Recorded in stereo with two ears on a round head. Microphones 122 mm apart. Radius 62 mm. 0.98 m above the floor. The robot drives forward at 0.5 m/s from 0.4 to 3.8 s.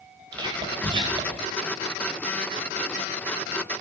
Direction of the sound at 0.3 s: 30° right (ahead or behind).